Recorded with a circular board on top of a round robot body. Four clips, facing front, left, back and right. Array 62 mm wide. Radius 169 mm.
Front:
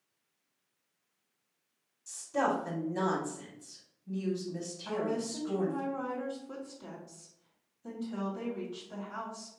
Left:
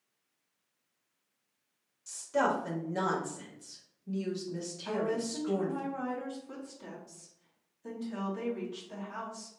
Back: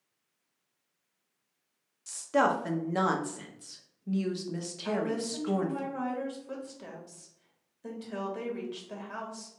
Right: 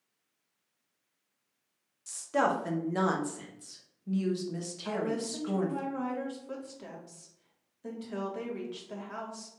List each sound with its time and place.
2.1 s a woman speaking: 160° right, 1.1 m
4.8 s a woman speaking: 145° right, 2 m